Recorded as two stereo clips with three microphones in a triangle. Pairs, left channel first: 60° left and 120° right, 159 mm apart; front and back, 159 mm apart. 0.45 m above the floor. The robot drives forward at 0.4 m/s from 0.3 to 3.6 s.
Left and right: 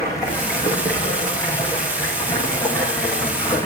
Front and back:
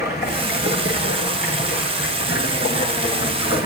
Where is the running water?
10° right, 7 m.